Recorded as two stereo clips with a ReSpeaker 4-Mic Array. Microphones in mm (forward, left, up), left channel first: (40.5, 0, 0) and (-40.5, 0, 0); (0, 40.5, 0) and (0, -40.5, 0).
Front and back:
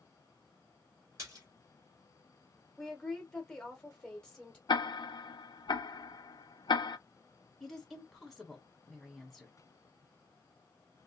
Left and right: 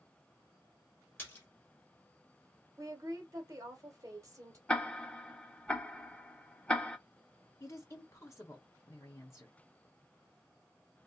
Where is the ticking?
15° left, 0.5 m.